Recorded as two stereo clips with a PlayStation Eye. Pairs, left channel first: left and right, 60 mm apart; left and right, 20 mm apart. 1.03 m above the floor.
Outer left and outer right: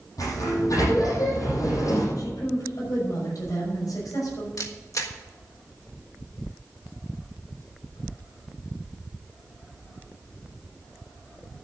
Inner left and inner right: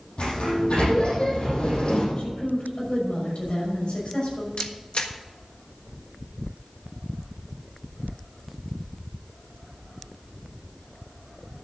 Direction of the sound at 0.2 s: 70° left (ahead or behind).